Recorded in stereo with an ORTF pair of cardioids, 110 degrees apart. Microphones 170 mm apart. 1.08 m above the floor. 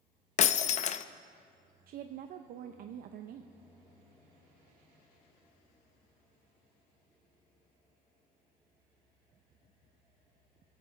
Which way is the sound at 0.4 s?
45° left.